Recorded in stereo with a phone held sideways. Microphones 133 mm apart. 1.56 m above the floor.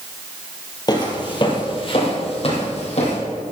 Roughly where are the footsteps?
Left.